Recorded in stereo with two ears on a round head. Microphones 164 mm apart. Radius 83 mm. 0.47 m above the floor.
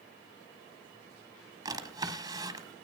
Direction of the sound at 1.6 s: 25° right (ahead or behind).